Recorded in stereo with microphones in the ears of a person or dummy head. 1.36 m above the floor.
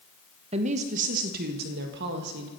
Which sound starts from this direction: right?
A woman speaking, at 0.5 s.